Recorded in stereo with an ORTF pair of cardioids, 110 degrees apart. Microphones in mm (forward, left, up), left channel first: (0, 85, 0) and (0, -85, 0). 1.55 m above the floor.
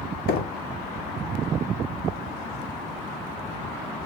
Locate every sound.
0.3 s knocking: 65° left, 0.5 m